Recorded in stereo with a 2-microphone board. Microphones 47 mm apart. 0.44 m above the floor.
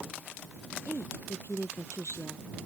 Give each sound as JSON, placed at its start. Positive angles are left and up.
{"t": 0.8, "sound": "a woman speaking", "side_deg": 60}